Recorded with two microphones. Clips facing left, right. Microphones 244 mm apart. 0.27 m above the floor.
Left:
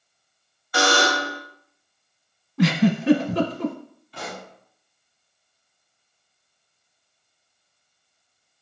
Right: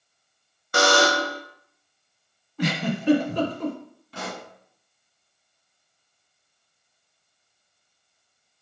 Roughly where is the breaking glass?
I don't hear breaking glass.